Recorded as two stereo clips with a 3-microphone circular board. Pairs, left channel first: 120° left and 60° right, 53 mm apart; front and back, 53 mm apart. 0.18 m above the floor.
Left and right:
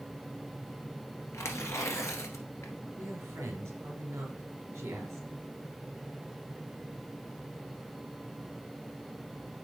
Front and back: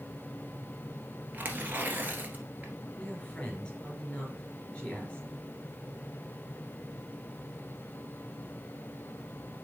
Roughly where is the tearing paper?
Behind left.